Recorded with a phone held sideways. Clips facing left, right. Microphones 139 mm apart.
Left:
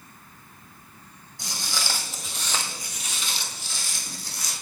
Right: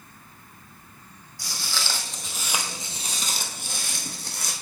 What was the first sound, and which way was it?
Footsteps, 20° left (ahead or behind).